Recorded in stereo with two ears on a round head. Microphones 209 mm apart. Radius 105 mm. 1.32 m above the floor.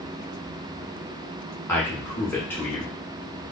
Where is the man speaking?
10° left (ahead or behind), 1.1 m.